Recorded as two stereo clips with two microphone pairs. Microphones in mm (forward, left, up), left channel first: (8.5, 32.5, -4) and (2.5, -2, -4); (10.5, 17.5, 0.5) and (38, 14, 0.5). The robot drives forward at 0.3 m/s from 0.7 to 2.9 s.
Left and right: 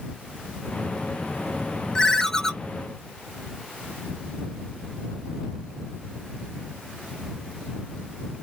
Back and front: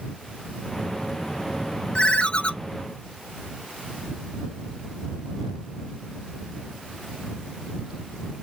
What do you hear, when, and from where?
1.9 s a ringtone: 135° left, 0.6 m; by 2.5 s 150° left, 0.7 m